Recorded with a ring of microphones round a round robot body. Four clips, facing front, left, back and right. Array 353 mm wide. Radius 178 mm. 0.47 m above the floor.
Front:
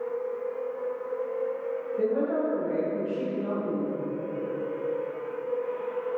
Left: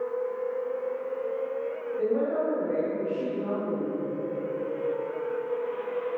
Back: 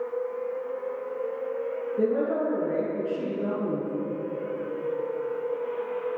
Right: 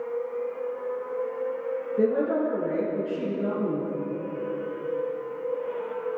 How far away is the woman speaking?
About 5.5 m.